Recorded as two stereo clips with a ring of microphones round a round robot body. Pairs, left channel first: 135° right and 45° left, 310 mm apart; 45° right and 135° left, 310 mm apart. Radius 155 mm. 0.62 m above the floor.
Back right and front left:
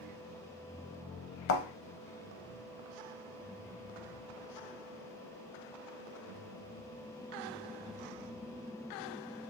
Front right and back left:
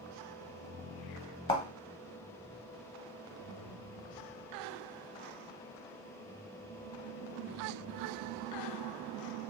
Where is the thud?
115° right, 0.5 m.